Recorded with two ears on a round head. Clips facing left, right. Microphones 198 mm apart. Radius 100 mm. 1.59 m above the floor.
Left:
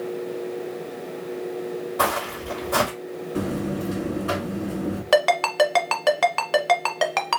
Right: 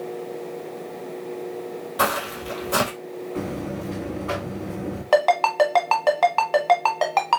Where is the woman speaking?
I don't hear a woman speaking.